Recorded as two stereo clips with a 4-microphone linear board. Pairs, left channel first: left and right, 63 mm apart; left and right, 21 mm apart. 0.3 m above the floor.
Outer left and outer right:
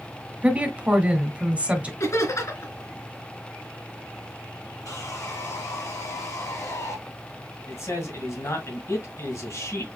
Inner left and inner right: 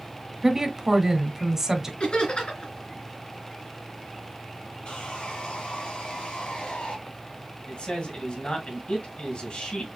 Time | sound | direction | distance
0.4 | a woman speaking | 20° right (ahead or behind) | 1.1 m
2.0 | laughter | 55° left (ahead or behind) | 3 m
4.8 | sawing | 60° left (ahead or behind) | 3 m
7.7 | a man speaking | 50° left (ahead or behind) | 2 m